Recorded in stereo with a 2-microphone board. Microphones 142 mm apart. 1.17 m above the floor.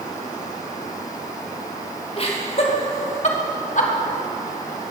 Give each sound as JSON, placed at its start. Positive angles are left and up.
{"t": 2.2, "sound": "laughter", "side_deg": 45, "distance_m": 2.5}